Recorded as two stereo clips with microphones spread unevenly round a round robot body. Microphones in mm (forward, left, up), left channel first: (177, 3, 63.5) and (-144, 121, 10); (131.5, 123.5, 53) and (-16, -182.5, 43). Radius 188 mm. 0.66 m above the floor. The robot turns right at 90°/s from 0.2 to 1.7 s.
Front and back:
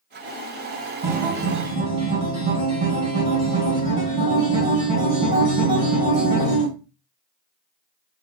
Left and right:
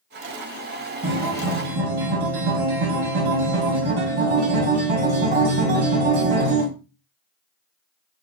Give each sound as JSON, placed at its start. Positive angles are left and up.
{"t": 1.0, "sound": "a guitar", "azimuth_deg": 175, "distance_m": 3.0}